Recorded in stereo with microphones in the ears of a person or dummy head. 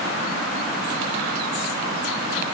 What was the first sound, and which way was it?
Only background noise.